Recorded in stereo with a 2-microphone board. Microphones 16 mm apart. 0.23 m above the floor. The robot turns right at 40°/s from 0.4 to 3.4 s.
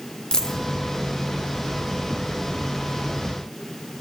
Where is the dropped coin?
60° left (ahead or behind), 3 m; by 0.6 s 50° left (ahead or behind), 3 m.